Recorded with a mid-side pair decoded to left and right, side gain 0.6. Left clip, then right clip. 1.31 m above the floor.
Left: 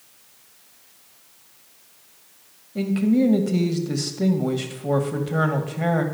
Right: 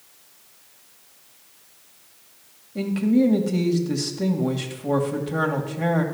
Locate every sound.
2.8 s a man speaking: 10° left, 1.9 m